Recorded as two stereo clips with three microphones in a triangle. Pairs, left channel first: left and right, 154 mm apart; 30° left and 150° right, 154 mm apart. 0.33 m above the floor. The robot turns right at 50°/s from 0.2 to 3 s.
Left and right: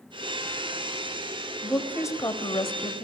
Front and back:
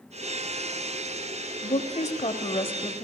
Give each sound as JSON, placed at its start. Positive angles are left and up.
{"t": 1.6, "sound": "a woman speaking", "azimuth_deg": 5, "distance_m": 1.5}